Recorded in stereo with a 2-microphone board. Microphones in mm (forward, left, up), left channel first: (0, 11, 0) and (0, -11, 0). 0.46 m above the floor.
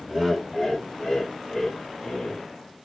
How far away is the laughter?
About 1.3 m.